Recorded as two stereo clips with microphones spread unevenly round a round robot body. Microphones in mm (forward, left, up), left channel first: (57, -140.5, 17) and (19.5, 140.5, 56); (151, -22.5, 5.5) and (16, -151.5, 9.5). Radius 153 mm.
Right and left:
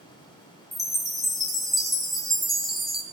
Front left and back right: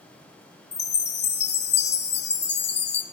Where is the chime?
5° left, 0.6 m.